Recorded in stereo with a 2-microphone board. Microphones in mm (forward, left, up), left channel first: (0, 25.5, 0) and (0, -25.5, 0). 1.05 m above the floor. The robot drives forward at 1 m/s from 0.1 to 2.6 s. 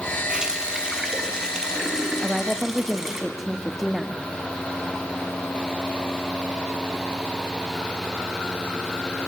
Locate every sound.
0.3 s a running tap: 20° right (ahead or behind), 3 m; by 3.2 s 10° right (ahead or behind), 5 m
2.2 s a woman speaking: 5° right (ahead or behind), 1.4 m